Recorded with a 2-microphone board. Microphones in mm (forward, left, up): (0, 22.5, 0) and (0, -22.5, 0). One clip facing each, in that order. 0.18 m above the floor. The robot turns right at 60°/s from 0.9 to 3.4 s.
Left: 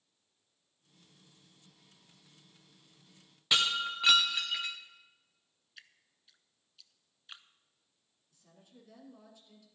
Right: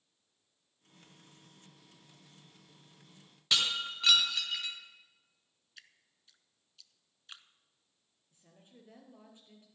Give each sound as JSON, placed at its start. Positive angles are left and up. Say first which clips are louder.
{"t": 3.5, "sound": "breaking glass", "louder": "left 2 dB", "side_deg": 15, "distance_m": 2.5}
{"t": 5.8, "sound": "dripping", "louder": "left 1 dB", "side_deg": 5, "distance_m": 0.6}
{"t": 8.3, "sound": "a woman speaking", "louder": "even", "side_deg": -30, "distance_m": 3.5}